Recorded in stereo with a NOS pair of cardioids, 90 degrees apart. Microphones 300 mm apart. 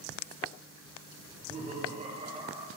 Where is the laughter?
35° right, 3.5 m; by 2.7 s 15° right, 4 m.